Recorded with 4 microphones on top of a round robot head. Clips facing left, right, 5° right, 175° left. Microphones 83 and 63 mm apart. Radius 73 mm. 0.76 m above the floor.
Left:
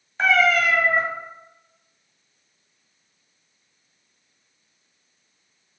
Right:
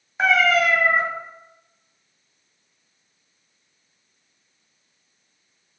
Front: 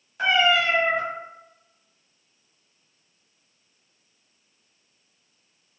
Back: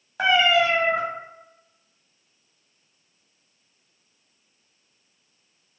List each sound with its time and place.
0.2 s a cat meowing: 170° right, 1.0 m